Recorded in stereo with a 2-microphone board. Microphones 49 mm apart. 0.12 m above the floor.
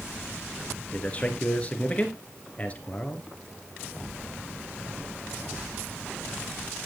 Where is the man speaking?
30° left (ahead or behind), 2 m.